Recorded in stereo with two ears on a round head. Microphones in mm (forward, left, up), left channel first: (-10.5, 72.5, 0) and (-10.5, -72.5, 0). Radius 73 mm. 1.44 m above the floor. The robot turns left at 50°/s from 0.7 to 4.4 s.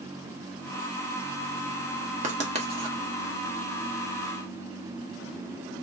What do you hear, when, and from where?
2.2 s writing: 45° right (ahead or behind), 1.0 m; by 3.0 s 30° right (ahead or behind), 1.0 m